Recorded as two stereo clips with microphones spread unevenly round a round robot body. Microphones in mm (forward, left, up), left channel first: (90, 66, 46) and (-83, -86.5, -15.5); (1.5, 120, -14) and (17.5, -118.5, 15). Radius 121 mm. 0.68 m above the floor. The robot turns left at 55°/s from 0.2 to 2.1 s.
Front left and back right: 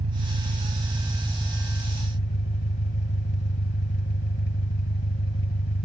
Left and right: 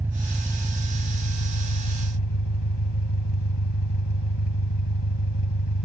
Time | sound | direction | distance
0.0 | an engine running | 165° right | ?